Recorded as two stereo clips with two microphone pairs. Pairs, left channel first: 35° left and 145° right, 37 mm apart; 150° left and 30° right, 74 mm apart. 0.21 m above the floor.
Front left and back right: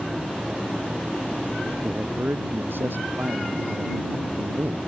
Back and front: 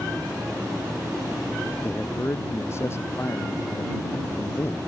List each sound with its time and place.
1.8 s a man speaking: 155° right